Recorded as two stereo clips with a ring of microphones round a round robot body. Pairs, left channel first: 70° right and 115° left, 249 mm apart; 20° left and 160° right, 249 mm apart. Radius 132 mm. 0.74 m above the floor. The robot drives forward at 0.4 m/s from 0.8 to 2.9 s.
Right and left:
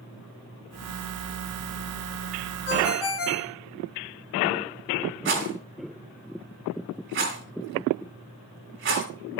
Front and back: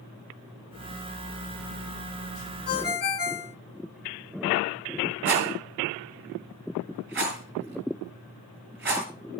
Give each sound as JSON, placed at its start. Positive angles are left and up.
{"t": 2.7, "sound": "a ringtone", "azimuth_deg": -30, "distance_m": 1.5}
{"t": 5.2, "sound": "a rattle", "azimuth_deg": 155, "distance_m": 5.5}